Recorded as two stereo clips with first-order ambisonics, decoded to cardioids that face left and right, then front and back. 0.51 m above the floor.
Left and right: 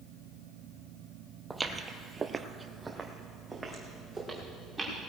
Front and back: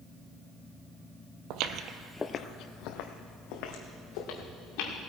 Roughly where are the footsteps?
Behind.